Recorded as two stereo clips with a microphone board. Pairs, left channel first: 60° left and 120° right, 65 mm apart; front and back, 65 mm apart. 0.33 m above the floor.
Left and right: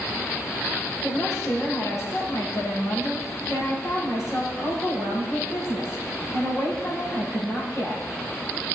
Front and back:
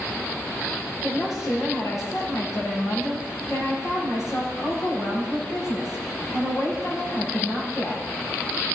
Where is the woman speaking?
25° left, 7 m.